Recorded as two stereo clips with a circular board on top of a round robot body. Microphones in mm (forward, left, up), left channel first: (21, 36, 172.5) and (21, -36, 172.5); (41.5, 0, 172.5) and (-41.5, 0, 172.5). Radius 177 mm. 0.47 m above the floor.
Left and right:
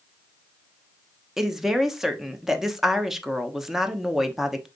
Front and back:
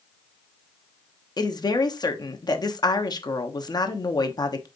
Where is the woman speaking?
5° right, 1.1 m.